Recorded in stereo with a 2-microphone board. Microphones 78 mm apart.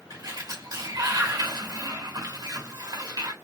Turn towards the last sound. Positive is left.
turn(degrees=-60)  # may be behind; listen again after turning